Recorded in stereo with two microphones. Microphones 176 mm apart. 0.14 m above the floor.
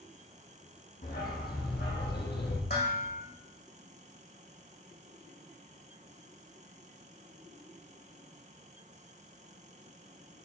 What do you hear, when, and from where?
1.0 s a dog barking: 55° left (ahead or behind), 3 m; by 2.6 s 75° left (ahead or behind), 2 m
2.7 s dishes clattering: 65° left (ahead or behind), 4.5 m